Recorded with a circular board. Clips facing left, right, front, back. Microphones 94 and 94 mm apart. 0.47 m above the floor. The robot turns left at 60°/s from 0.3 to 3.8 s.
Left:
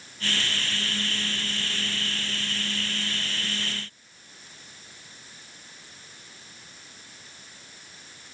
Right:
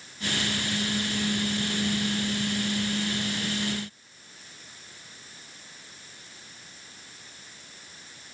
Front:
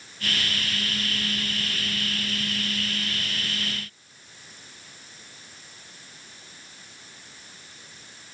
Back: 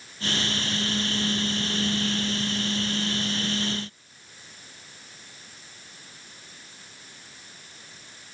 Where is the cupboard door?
No cupboard door in this recording.